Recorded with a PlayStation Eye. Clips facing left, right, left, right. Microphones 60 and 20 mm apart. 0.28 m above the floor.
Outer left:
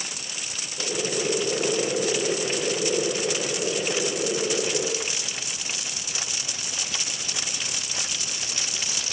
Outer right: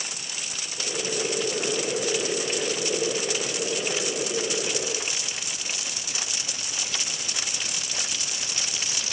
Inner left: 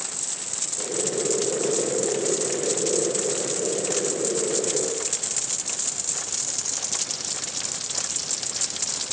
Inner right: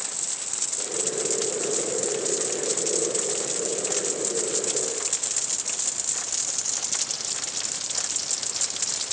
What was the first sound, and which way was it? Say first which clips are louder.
Boiling: outer left 2 dB, inner left 3 dB; 5° left (ahead or behind).